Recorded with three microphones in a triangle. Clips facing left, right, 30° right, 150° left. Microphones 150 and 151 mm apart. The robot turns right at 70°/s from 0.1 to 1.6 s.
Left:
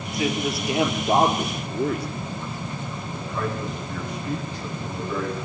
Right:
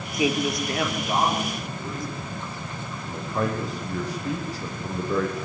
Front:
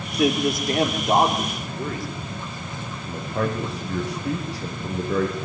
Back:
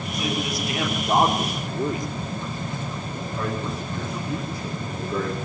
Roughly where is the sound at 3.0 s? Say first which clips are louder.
Right 3 dB, front 5 dB; ahead right.